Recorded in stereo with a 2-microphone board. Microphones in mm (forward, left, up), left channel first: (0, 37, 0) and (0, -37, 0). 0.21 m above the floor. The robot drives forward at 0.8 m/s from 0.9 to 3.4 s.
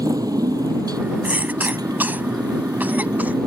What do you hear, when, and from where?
0.0 s a motorcycle: 65° right (ahead or behind); by 3.5 s 75° right (ahead or behind)
1.2 s a cough: 25° right (ahead or behind)